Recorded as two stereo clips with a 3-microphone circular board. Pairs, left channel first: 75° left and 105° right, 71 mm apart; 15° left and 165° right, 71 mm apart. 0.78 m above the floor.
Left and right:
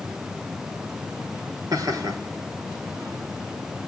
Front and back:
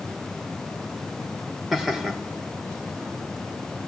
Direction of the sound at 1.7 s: 75° right.